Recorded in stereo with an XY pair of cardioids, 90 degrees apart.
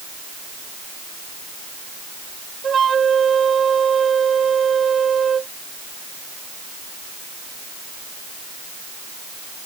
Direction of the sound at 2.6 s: 45° right.